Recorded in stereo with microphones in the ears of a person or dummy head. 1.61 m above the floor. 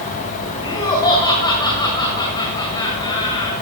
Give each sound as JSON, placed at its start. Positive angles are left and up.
{"t": 0.6, "sound": "laughter", "side_deg": 25, "distance_m": 2.0}